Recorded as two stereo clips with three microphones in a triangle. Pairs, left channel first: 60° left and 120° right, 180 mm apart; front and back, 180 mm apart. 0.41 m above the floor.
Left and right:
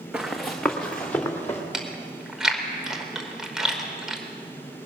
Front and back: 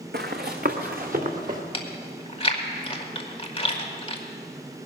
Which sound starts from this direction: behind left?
Running footsteps, at 0.1 s.